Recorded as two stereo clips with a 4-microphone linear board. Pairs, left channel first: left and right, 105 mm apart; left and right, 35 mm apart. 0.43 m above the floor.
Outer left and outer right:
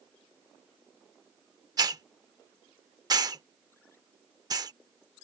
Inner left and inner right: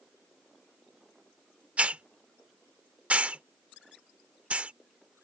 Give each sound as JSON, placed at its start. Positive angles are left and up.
{"t": 1.8, "sound": "a hiss", "side_deg": -40}